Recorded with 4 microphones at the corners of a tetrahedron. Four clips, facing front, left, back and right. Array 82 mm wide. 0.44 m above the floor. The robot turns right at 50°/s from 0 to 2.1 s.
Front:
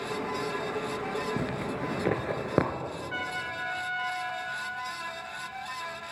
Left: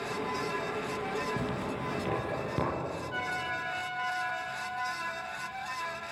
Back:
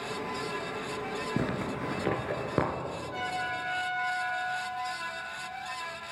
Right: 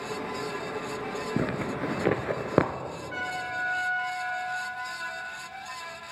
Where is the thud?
No thud in this recording.